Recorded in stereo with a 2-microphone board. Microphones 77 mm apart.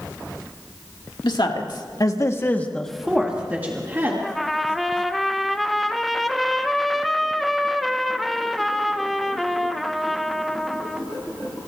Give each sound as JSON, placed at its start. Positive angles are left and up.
{"t": 1.2, "sound": "a woman speaking", "side_deg": 75, "distance_m": 2.5}
{"t": 4.2, "sound": "a trumpet", "side_deg": 0, "distance_m": 0.8}